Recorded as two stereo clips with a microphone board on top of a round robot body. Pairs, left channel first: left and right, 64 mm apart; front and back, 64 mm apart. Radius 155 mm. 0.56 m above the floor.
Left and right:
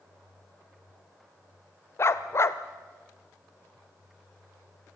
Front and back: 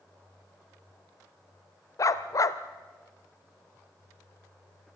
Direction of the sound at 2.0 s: 40° left.